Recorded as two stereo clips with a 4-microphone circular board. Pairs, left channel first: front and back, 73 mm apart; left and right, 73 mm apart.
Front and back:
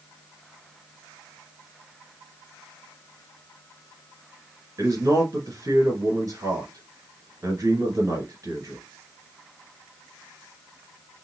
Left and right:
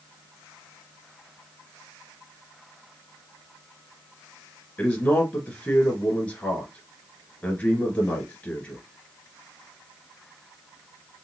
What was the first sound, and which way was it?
A man speaking, 150° left.